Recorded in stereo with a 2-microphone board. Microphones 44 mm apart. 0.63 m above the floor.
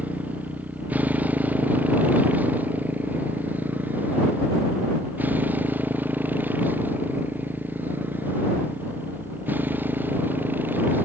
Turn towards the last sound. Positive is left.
turn(degrees=-45)  # may be behind; listen again after turning